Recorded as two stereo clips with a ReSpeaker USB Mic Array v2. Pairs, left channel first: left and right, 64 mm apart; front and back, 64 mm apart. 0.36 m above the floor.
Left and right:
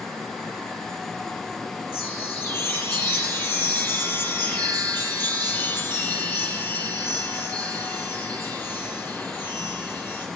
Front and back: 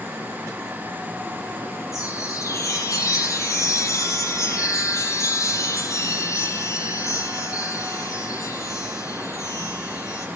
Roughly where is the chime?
Ahead left.